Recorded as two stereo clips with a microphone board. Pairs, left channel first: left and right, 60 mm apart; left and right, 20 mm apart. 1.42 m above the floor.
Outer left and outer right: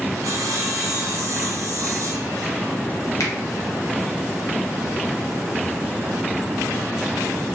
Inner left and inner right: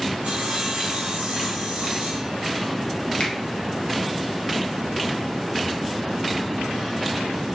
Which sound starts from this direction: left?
A finger snap, at 3.2 s.